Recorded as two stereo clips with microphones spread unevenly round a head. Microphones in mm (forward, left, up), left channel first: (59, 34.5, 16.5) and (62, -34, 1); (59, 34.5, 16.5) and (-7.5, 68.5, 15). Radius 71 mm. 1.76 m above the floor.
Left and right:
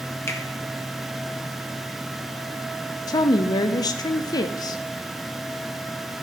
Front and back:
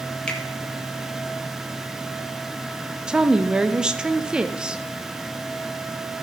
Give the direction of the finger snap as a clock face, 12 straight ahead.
10 o'clock.